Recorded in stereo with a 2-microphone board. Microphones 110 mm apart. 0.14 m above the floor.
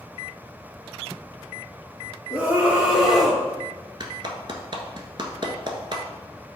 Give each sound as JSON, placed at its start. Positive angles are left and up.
{"t": 2.3, "sound": "a scream", "side_deg": -20, "distance_m": 3.5}
{"t": 4.0, "sound": "a clap", "side_deg": -45, "distance_m": 1.3}